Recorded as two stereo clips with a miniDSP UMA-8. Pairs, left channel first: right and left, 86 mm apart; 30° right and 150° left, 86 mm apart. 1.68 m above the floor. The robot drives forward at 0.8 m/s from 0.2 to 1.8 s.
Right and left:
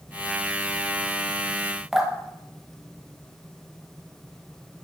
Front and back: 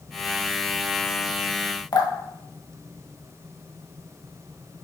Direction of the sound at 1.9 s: 5° left.